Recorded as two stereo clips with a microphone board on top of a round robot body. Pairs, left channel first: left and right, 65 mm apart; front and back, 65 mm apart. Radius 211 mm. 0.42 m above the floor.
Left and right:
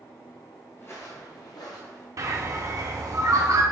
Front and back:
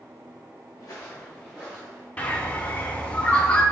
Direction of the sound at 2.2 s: 65° right.